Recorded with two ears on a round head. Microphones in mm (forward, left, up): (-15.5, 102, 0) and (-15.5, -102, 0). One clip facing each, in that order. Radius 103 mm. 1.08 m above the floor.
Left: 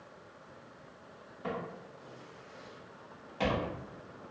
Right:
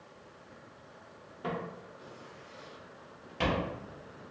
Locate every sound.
1.4 s footsteps: 55° right (ahead or behind), 1.7 m; by 3.7 s 30° right (ahead or behind), 1.6 m